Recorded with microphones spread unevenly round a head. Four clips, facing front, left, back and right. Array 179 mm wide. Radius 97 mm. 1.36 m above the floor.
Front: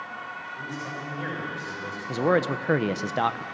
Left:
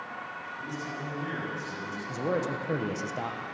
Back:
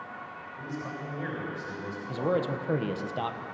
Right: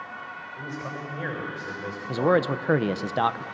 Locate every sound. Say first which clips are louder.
0.6 s a man speaking: right 3 dB, even; 60° right, 7 m
2.1 s a man speaking: right 8 dB, front 5 dB; 45° right, 1.1 m